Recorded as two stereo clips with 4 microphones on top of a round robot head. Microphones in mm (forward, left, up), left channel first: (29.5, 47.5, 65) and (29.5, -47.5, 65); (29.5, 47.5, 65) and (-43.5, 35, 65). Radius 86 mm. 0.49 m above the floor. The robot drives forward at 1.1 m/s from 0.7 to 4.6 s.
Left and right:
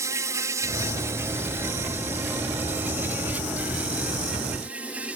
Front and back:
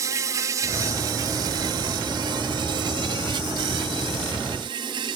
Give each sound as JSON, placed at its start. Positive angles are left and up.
{"t": 0.0, "sound": "an insect", "azimuth_deg": -140}